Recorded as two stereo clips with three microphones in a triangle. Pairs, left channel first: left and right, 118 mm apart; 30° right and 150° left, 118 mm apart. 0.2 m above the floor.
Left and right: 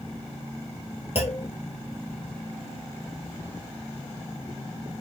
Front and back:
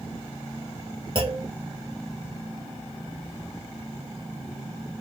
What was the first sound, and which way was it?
A clunk, 110° left.